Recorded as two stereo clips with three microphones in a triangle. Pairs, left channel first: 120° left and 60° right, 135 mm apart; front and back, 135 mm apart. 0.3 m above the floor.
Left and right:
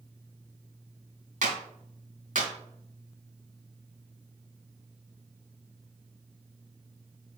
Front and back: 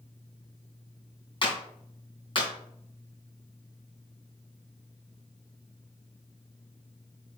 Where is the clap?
50° right, 2.5 m.